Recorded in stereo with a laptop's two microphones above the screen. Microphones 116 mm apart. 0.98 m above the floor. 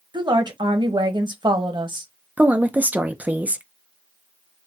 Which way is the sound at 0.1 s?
40° right (ahead or behind).